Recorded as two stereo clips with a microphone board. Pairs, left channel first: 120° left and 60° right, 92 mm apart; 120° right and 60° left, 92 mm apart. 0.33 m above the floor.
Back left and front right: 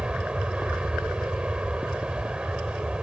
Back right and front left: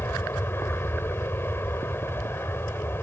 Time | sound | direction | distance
0.0 | an aircraft | 125° right | ?